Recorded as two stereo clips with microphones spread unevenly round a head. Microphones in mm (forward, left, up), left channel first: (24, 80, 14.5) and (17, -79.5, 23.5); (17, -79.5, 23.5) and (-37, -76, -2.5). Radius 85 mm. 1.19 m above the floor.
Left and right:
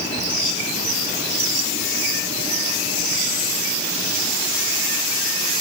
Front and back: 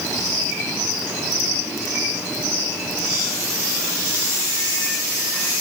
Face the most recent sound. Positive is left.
No sound to turn to.